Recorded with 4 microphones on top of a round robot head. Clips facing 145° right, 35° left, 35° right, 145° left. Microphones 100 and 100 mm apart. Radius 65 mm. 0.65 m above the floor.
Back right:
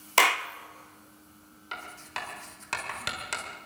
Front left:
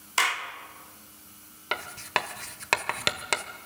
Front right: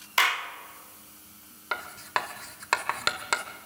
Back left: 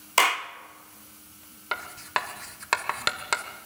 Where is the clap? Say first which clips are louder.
Back right 4 dB, back left 3 dB; 170° right, 1.0 m.